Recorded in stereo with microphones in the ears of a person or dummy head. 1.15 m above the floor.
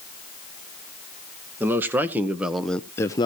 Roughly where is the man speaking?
Centre.